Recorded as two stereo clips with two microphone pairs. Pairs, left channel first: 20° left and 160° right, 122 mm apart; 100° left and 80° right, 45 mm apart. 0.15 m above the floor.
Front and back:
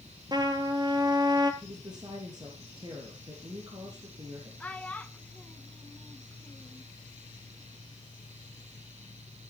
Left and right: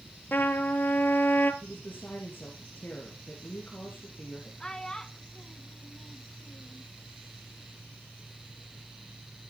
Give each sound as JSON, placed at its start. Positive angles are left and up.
{"t": 0.3, "sound": "a trumpet", "azimuth_deg": 145, "distance_m": 1.1}
{"t": 1.6, "sound": "a woman speaking", "azimuth_deg": 145, "distance_m": 3.5}
{"t": 4.6, "sound": "a child speaking", "azimuth_deg": 60, "distance_m": 0.6}